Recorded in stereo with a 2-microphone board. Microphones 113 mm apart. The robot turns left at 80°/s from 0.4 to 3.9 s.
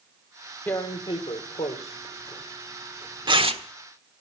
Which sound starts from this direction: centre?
Tearing paper, at 0.7 s.